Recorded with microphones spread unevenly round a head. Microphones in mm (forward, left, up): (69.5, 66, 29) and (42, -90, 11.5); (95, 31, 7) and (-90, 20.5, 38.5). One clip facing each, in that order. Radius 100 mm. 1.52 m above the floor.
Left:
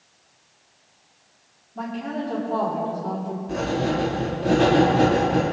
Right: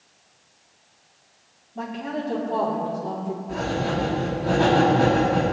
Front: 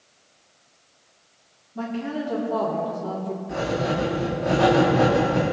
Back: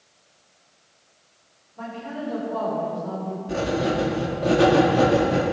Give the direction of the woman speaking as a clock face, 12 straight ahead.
12 o'clock.